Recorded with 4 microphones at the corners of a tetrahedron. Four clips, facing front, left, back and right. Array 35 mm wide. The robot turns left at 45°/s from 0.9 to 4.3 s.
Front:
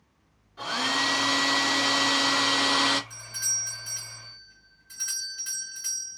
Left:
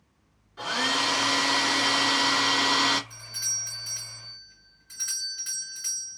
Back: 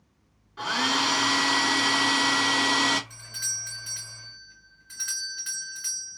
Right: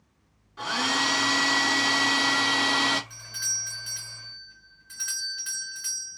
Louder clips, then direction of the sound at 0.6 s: Even, back 2 dB; 175° left.